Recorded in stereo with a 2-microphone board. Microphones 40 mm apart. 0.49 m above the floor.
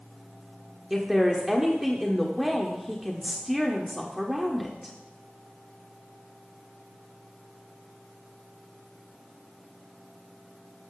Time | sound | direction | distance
0.9 | a woman speaking | 5° right (ahead or behind) | 1.2 m